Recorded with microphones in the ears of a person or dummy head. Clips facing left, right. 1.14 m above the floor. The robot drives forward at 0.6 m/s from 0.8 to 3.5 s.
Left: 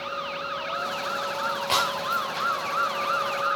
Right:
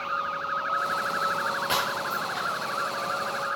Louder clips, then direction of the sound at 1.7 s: Left 2 dB; 15° right (ahead or behind).